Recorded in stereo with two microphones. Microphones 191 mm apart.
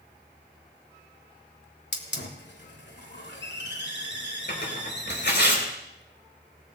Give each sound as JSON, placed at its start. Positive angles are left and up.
{"t": 1.9, "sound": "a hiss", "side_deg": 65, "distance_m": 1.6}
{"t": 4.5, "sound": "tearing paper", "side_deg": 65, "distance_m": 3.5}